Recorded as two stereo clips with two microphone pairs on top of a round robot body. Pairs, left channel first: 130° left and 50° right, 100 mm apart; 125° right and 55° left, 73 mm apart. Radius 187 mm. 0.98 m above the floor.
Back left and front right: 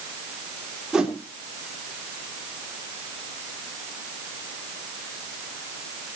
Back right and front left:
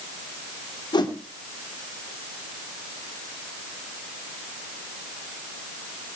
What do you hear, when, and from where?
0.9 s a whoosh: 135° right, 3.5 m